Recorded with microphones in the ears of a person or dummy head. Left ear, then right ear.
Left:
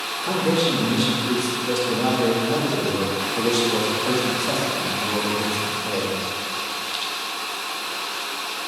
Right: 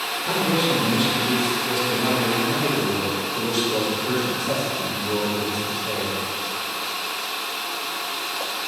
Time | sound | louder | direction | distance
0.2 | a man speaking | left 1 dB | 85° left | 2.5 m